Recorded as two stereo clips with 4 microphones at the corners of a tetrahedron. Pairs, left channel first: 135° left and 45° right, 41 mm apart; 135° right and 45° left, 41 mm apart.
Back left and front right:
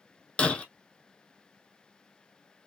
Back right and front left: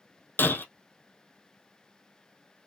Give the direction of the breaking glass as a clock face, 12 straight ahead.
5 o'clock.